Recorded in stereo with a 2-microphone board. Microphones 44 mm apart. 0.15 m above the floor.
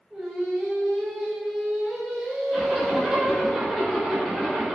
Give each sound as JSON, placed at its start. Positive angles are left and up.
{"t": 0.1, "sound": "singing", "side_deg": -5, "distance_m": 1.1}
{"t": 2.5, "sound": "a zipper", "side_deg": 0, "distance_m": 1.3}